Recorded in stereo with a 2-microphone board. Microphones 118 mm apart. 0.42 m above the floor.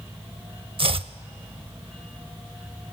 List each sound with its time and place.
0.8 s chopping: 55° right (ahead or behind), 0.5 m